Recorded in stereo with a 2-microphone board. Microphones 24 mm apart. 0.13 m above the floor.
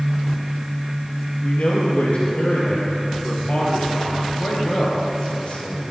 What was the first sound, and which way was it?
A man speaking, 55° left (ahead or behind).